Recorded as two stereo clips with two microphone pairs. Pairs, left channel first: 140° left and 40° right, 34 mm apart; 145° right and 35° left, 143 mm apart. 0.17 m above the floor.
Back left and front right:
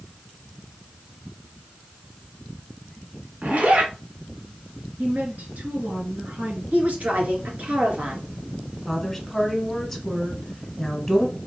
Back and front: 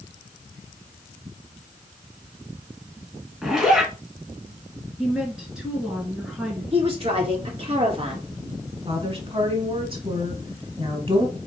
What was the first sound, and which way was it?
A zipper, 50° right.